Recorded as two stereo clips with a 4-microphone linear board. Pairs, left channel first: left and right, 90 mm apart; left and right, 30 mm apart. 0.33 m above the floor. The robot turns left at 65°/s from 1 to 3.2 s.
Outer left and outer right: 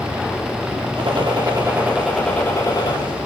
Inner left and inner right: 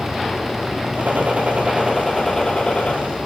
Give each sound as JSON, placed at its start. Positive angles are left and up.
{"t": 1.0, "sound": "a gunshot", "azimuth_deg": -105, "distance_m": 9.5}